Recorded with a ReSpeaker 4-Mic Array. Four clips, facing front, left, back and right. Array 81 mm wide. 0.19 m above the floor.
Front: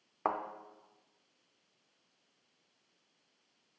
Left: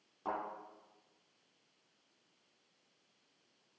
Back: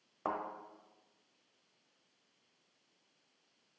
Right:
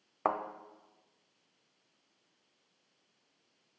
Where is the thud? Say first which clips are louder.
Right 7 dB, front 4 dB; 60° right, 0.6 m.